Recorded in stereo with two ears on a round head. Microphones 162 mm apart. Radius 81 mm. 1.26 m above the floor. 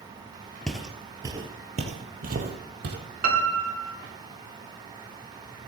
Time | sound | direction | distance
0.7 | footsteps | 5° left (ahead or behind) | 1.3 m
3.2 | a piano | 55° right (ahead or behind) | 1.9 m